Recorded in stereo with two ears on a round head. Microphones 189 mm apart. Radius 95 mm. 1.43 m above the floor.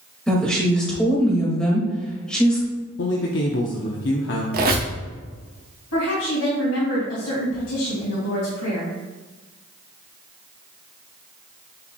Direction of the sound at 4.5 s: 45° right (ahead or behind).